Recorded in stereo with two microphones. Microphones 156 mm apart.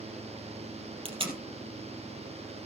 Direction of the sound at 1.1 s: 35° right (ahead or behind).